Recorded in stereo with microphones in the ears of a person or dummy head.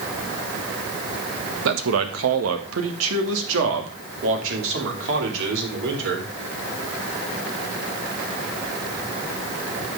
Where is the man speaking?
70° right (ahead or behind), 1.5 m.